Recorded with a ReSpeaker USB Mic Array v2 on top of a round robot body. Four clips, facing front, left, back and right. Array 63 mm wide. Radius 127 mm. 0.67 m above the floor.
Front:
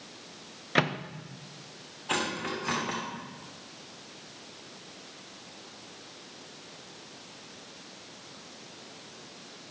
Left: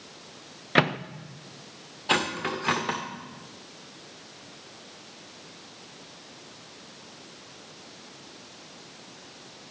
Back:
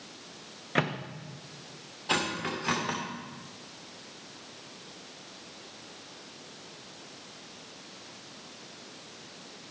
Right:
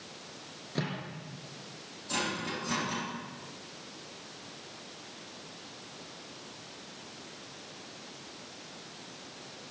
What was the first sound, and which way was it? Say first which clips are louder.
A microwave: left 13 dB, front 2 dB; 80° left.